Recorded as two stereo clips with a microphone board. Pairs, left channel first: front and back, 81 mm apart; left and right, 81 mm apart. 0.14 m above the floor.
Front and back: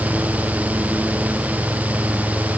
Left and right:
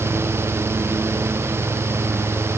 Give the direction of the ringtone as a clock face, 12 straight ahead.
No ringtone in this recording.